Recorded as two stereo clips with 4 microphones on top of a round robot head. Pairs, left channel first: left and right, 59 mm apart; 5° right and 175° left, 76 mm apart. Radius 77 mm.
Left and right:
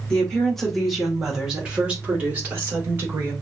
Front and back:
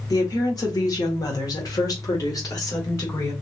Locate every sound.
0.1 s a woman speaking: 20° left, 1.9 m; by 3.3 s 40° right, 2.5 m